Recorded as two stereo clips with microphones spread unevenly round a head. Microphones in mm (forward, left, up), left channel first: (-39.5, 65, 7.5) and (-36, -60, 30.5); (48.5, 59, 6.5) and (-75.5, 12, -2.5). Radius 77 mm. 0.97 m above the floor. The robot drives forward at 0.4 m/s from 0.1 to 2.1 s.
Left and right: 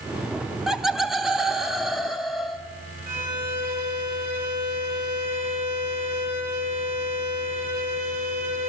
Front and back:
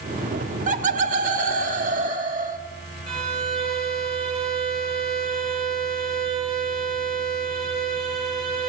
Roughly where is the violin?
Right.